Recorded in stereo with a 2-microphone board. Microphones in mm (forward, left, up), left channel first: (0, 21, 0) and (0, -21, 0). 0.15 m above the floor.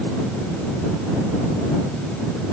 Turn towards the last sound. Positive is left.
No sound to turn to.